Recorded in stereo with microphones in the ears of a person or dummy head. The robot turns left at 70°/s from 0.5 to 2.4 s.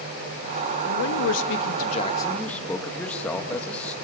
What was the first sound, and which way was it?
A man speaking, 120° left.